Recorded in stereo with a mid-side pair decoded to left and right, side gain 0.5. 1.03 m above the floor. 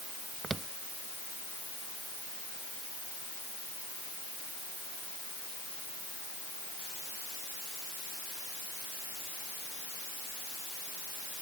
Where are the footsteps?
30° right.